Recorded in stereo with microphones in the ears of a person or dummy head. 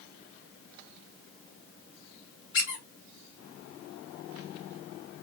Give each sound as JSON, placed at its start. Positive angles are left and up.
{"t": 2.5, "sound": "a squeak", "side_deg": 25, "distance_m": 1.8}